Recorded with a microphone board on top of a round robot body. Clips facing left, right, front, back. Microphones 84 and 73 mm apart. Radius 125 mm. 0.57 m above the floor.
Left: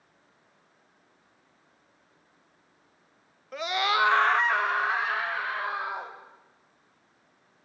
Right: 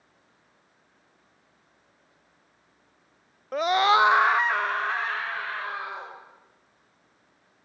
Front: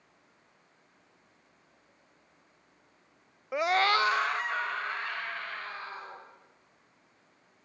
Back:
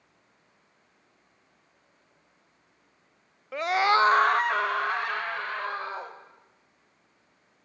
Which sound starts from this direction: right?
A scream, at 3.5 s.